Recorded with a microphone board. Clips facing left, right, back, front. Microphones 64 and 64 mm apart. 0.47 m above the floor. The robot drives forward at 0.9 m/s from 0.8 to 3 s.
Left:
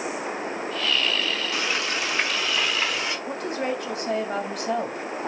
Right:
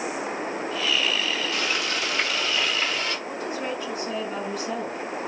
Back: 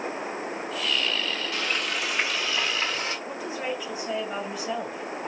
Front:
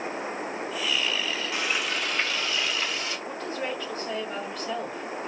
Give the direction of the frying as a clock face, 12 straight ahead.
10 o'clock.